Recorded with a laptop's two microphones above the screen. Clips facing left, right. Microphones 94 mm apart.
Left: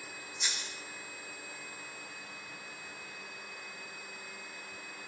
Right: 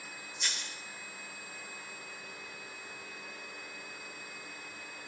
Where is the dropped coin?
15° left (ahead or behind), 0.6 m.